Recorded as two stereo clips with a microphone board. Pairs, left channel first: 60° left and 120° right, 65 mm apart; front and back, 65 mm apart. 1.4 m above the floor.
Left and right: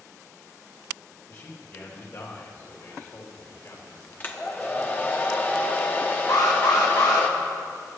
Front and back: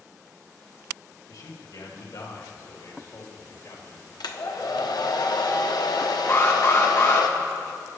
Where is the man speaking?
20° left, 2.5 m; by 4.1 s 35° left, 4 m.